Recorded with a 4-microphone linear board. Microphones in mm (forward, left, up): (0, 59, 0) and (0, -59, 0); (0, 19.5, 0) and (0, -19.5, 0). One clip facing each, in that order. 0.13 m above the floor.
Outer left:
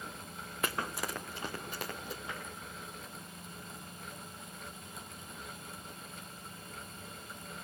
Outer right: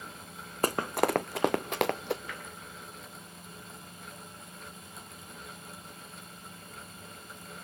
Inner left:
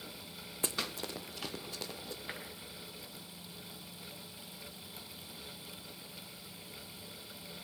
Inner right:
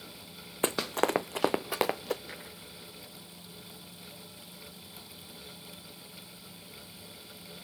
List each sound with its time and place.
0.6 s running footsteps: 40° right (ahead or behind), 0.7 m; by 2.2 s 70° right (ahead or behind), 1.3 m
2.3 s tapping: 25° left (ahead or behind), 7 m